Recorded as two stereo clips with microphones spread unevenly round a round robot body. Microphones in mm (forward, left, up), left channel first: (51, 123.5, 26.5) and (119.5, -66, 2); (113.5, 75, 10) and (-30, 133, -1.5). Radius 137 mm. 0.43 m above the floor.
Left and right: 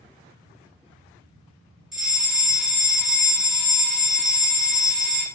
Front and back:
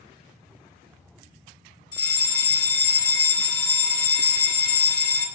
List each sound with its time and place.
1.9 s a fire alarm: 5° right, 1.7 m